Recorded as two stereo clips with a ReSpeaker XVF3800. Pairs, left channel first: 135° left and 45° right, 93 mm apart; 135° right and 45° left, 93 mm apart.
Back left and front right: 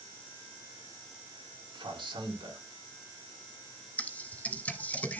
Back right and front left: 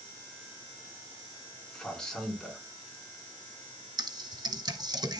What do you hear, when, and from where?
1.7 s a man speaking: 55° right, 3 m
4.0 s typing on a keyboard: 65° left, 1.4 m